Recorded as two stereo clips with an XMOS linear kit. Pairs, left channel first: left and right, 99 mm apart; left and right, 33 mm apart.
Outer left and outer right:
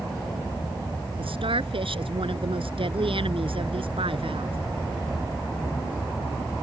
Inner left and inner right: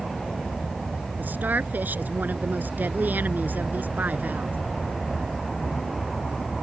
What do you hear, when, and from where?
1.2 s a woman speaking: 75° right (ahead or behind)